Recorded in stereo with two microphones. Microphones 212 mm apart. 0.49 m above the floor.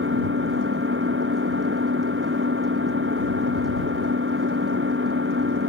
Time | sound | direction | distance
0.0 | an engine running | 75° right (ahead or behind) | ?